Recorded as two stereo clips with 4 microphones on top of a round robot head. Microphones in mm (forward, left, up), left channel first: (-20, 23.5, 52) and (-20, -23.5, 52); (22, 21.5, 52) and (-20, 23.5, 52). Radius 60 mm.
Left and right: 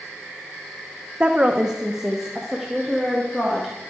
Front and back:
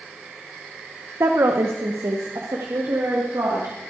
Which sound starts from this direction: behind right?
A woman speaking, at 1.2 s.